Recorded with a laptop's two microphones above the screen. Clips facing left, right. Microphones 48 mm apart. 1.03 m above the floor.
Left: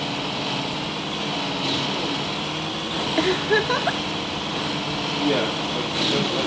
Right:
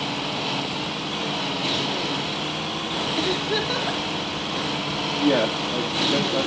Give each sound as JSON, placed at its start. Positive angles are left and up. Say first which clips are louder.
{"t": 3.2, "sound": "a giggle", "louder": "left 6 dB", "side_deg": 30, "distance_m": 0.7}
{"t": 5.2, "sound": "a man speaking", "louder": "right 2 dB", "side_deg": -80, "distance_m": 1.7}